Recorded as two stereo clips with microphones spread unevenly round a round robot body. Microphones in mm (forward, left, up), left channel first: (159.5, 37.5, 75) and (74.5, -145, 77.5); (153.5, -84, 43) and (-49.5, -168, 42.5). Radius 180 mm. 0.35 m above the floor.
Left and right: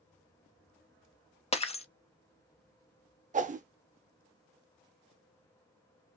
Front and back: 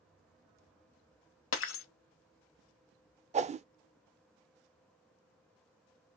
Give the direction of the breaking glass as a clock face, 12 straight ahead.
12 o'clock.